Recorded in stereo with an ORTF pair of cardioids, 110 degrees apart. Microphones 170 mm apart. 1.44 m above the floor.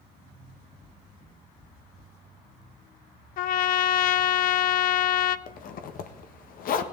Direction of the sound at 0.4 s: 65° left.